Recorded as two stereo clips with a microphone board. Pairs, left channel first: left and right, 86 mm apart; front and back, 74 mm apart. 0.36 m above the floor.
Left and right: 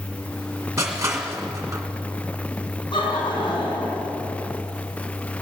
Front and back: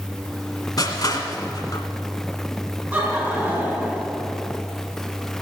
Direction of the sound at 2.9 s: 100° left.